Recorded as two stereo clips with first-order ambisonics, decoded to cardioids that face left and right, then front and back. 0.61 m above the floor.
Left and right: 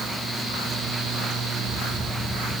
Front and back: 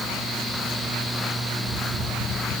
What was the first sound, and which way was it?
Only background noise.